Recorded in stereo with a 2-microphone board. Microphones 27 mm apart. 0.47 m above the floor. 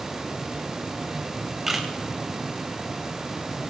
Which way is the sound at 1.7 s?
15° right (ahead or behind).